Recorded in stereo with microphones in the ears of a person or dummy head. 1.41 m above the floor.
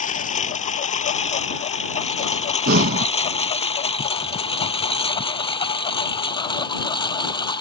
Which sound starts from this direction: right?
Breathing, at 2.7 s.